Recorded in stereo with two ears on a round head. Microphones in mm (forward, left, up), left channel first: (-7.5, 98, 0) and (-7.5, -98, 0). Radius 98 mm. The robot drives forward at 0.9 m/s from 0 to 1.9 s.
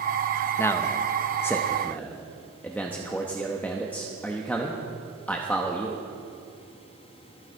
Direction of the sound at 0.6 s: 10° left (ahead or behind).